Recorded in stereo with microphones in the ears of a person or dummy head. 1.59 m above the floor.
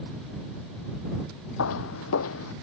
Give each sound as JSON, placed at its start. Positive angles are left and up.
{"t": 1.6, "sound": "footsteps", "side_deg": 75}